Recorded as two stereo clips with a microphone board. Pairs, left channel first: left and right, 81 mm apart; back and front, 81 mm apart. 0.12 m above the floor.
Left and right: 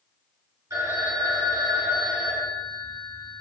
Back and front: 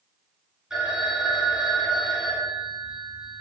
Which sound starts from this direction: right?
A phone ringing, at 0.7 s.